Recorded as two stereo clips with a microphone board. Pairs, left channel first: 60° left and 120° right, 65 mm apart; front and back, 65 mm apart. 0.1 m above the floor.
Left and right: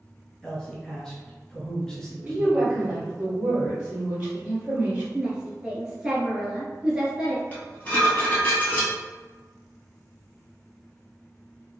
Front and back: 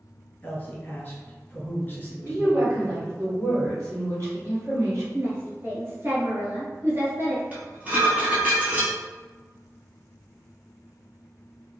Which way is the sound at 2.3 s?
175° left.